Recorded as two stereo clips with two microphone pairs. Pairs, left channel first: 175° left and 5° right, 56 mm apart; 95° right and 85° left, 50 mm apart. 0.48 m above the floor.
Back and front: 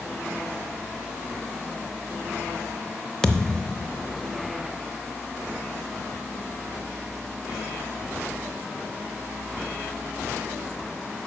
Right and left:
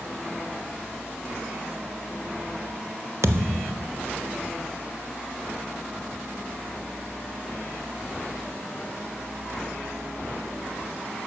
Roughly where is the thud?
Left.